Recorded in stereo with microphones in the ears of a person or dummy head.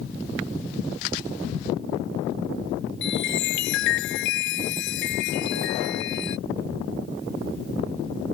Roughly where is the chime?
Left.